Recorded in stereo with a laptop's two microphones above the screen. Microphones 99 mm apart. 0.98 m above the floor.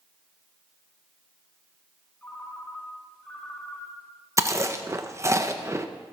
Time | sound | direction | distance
2.2 | a ringtone | 15° left (ahead or behind) | 4 m
4.4 | chewing | 30° right (ahead or behind) | 0.8 m